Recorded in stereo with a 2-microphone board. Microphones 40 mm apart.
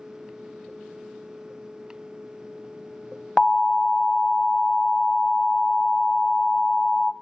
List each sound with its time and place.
3.4 s an alarm: 20° left (ahead or behind), 0.6 m